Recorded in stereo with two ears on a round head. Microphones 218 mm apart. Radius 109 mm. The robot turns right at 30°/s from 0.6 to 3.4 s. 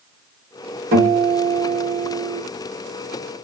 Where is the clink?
I don't hear a clink.